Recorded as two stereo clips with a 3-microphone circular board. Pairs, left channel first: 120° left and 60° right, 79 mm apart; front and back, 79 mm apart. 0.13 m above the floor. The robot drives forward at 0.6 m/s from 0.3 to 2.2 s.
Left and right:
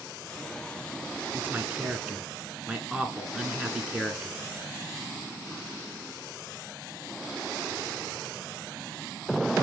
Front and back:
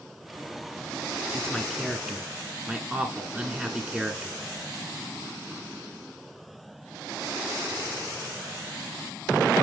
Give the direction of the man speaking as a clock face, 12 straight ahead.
2 o'clock.